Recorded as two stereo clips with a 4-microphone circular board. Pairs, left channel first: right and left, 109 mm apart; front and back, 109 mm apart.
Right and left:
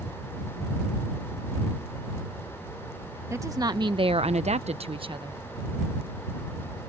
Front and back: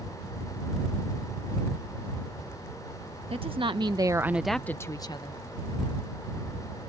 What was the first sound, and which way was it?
A woman speaking, 150° left.